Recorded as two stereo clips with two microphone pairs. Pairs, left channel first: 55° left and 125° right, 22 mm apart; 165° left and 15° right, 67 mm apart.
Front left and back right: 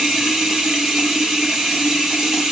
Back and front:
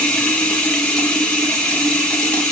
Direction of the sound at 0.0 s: 135° right.